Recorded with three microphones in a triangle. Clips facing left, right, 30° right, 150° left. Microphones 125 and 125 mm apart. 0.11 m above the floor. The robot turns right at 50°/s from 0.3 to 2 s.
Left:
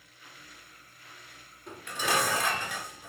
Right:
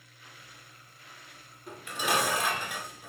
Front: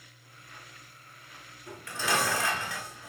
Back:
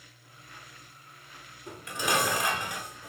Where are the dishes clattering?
175° right, 1.1 m; by 3.1 s 155° right, 1.1 m.